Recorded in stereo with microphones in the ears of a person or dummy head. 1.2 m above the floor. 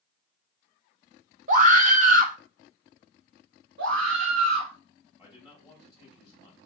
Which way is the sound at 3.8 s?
65° right (ahead or behind).